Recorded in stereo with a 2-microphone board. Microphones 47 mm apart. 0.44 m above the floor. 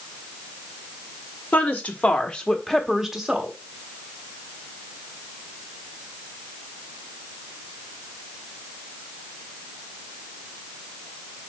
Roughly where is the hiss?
I don't hear a hiss.